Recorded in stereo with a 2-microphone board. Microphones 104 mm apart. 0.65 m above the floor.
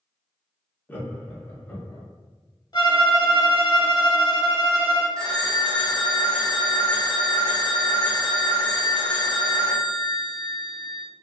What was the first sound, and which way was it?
Laughter, 20° left (ahead or behind).